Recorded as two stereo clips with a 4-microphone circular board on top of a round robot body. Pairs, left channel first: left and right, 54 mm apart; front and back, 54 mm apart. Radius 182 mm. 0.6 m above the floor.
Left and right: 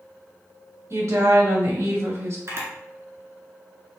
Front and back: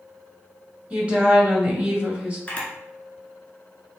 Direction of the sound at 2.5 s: 65° right.